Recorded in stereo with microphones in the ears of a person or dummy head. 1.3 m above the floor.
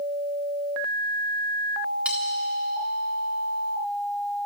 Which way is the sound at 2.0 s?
10° right (ahead or behind).